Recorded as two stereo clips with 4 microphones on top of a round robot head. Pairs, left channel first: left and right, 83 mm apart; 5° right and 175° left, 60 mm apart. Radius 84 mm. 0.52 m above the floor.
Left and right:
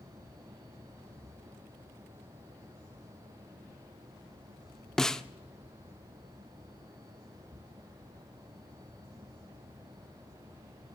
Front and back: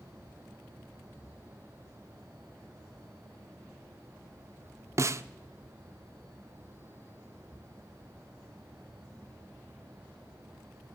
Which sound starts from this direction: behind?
A snare drum, at 5.0 s.